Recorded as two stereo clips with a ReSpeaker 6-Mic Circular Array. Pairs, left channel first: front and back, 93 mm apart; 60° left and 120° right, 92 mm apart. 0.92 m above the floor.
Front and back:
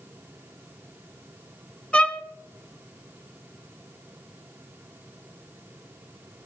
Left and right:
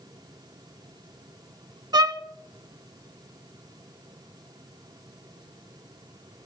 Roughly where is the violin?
Right.